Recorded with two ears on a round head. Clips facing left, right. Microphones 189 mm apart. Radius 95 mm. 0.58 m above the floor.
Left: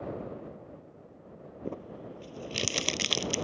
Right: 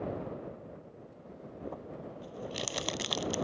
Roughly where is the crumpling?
Left.